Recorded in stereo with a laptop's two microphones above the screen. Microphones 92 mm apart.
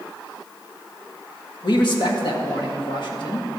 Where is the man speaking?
60° left (ahead or behind), 1.4 m.